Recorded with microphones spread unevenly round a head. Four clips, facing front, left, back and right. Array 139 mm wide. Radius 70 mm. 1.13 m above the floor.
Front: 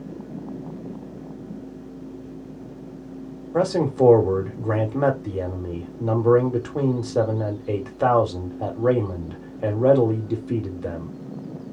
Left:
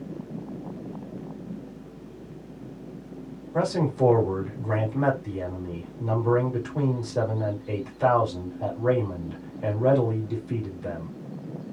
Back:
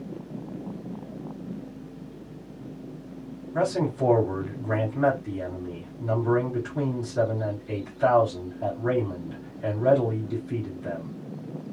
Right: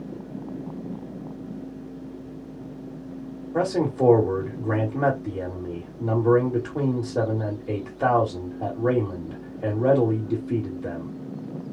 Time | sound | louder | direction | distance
3.5 | a man speaking | right 1 dB, front 5 dB | 15° right | 2.0 m